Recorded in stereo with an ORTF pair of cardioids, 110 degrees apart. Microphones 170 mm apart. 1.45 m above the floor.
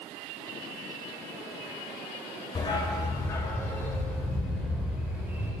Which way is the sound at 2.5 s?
30° left.